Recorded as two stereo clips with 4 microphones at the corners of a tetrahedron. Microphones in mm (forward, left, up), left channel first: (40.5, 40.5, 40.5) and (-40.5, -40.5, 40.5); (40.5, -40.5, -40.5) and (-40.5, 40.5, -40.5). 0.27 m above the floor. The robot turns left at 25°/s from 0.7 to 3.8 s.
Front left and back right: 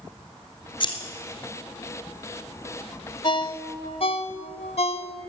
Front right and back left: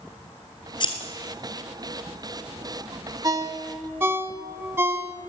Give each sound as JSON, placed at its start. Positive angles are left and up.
{"t": 0.8, "sound": "scissors", "azimuth_deg": 0, "distance_m": 1.5}
{"t": 3.2, "sound": "a ringtone", "azimuth_deg": 85, "distance_m": 0.7}